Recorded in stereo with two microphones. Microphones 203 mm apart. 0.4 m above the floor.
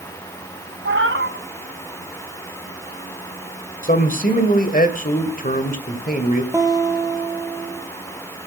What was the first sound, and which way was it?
A cat meowing, 75° right (ahead or behind).